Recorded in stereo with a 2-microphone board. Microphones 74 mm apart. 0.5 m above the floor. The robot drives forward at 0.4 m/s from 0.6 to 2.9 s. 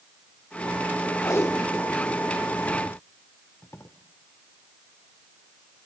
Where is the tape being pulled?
45° left (ahead or behind), 0.8 m; by 3.9 s 35° left (ahead or behind), 1.0 m.